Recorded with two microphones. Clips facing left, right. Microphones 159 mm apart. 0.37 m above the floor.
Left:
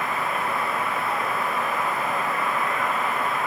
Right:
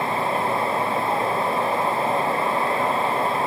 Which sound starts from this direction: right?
Running water, at 0.0 s.